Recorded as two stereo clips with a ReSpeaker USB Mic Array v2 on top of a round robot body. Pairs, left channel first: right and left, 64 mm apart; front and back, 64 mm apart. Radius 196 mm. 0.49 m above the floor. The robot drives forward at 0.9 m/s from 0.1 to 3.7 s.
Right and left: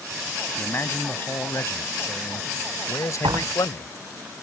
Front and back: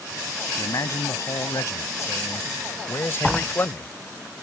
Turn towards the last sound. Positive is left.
turn(degrees=100)